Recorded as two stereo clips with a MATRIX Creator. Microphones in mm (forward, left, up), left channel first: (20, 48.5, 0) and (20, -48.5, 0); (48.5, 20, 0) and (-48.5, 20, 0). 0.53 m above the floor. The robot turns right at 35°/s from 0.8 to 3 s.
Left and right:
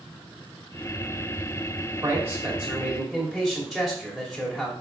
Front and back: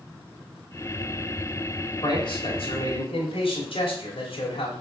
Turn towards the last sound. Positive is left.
turn(degrees=-5)